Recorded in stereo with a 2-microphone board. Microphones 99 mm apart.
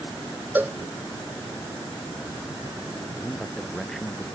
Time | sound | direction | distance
0.6 | a cowbell | 20° right (ahead or behind) | ?
3.2 | a man speaking | centre (ahead or behind) | ?